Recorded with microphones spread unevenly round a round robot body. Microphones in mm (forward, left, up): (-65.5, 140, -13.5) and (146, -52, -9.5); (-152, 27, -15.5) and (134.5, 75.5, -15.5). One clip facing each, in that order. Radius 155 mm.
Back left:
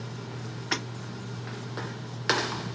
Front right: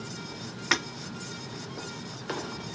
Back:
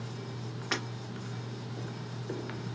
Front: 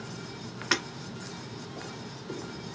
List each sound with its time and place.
0.7 s breaking glass: 40° right, 2.0 m